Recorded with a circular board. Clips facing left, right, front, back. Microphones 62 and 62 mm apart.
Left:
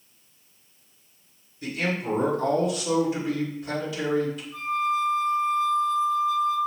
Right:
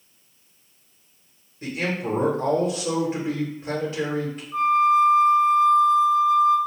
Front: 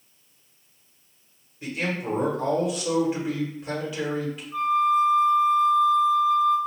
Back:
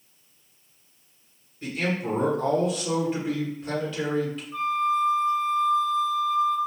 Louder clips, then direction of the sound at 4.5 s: Right 9 dB, front 4 dB; 80° right.